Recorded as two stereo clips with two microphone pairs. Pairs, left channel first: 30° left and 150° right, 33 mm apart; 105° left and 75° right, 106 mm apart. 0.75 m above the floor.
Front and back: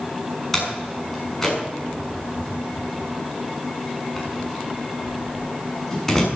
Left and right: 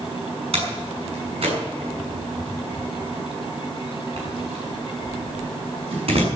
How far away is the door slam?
About 6.5 m.